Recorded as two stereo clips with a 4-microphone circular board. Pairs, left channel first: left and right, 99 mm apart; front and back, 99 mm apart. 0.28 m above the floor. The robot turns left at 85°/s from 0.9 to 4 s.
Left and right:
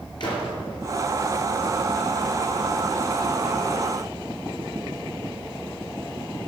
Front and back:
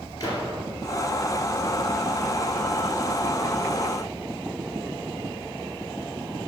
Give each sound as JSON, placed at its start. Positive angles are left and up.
{"t": 0.2, "sound": "a gunshot", "azimuth_deg": 55, "distance_m": 2.5}